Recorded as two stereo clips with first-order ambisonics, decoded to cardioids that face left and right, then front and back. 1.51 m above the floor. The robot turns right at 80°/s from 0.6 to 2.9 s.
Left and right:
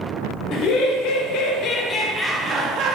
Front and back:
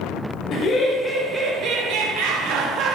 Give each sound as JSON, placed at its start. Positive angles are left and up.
{"t": 0.5, "sound": "laughter", "azimuth_deg": 50, "distance_m": 0.8}